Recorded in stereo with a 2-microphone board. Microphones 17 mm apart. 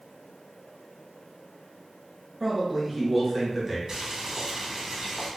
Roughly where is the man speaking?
Centre.